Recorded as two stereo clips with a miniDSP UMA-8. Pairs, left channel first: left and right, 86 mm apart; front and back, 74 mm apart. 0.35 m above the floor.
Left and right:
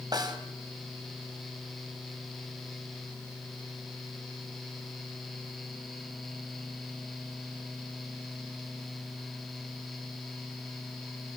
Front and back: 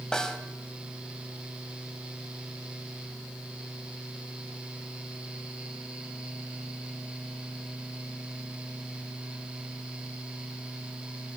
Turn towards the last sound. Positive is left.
turn(degrees=-80)